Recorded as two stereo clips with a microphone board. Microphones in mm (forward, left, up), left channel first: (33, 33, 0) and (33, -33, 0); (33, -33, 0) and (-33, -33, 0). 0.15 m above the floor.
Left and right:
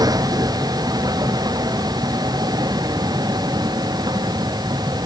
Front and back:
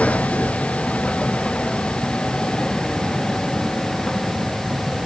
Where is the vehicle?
70° right; by 5.1 s 85° right.